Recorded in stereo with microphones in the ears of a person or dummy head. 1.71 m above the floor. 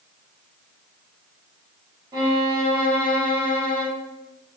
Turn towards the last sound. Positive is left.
turn(degrees=-20)  # may be behind; listen again after turning